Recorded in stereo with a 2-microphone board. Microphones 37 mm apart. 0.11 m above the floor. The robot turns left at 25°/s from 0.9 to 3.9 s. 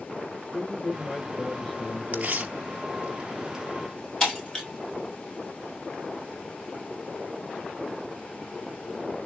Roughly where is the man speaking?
Behind.